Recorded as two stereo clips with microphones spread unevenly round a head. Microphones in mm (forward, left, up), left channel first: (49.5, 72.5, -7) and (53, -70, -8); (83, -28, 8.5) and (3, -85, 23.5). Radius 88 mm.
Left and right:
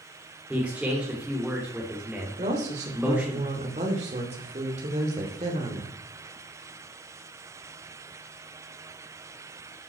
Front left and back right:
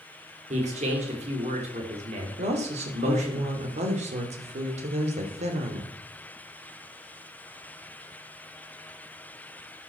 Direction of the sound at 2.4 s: 145° right.